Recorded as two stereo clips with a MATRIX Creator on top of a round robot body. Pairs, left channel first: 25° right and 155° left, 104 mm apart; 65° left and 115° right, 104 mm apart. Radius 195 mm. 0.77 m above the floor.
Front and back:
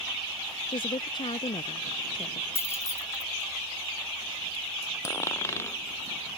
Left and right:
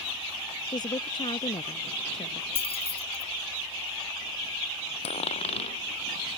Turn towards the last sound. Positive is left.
turn(degrees=45)